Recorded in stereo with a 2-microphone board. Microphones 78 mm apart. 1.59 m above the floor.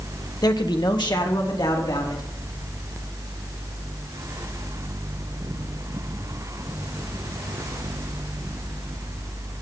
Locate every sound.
0.4 s a man speaking: 60° left (ahead or behind), 1.1 m; by 2.2 s 90° left, 3.5 m